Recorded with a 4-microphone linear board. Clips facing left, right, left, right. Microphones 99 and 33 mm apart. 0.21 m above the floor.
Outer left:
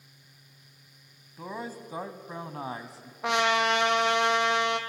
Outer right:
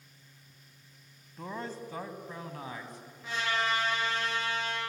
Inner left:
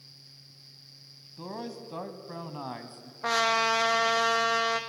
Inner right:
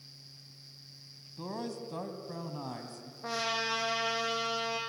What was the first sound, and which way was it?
A man speaking, 5° left (ahead or behind).